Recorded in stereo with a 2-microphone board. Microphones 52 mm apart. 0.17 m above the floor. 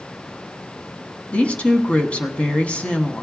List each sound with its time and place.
1.3 s a woman speaking: 25° left (ahead or behind), 1.1 m